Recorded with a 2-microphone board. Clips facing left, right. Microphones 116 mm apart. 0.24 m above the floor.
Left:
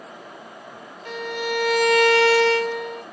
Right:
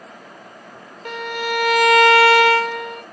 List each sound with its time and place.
1.1 s a violin: 65° right (ahead or behind), 0.7 m